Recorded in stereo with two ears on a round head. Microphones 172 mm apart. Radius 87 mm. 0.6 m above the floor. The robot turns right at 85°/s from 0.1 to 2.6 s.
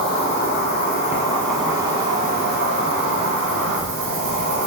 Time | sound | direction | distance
0.0 | an insect | 55° left | 0.7 m